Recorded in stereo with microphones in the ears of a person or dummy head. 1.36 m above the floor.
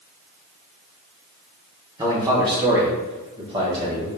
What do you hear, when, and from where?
2.0 s a man speaking: 20° right (ahead or behind), 0.9 m; by 4.1 s 25° right (ahead or behind), 2 m